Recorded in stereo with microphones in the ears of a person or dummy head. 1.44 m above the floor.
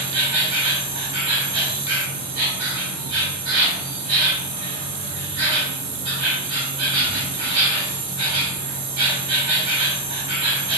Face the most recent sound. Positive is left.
turn(degrees=-20)  # may be behind; listen again after turning